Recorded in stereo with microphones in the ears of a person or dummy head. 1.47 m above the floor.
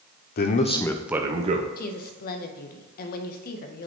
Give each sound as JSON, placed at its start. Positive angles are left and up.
{"t": 0.4, "sound": "a man speaking", "side_deg": 50, "distance_m": 0.8}
{"t": 1.8, "sound": "a woman speaking", "side_deg": 55, "distance_m": 0.9}